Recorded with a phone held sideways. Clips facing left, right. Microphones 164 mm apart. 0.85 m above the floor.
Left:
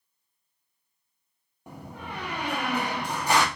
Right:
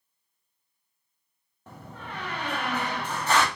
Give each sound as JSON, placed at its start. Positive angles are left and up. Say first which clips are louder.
{"t": 1.7, "sound": "a door slam", "louder": "left 2 dB", "side_deg": 15, "distance_m": 0.7}